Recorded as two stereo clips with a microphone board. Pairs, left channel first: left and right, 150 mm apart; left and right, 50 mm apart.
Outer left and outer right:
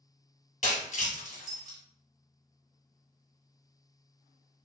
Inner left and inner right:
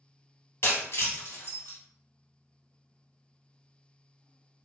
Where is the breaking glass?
60° left (ahead or behind), 1.8 m.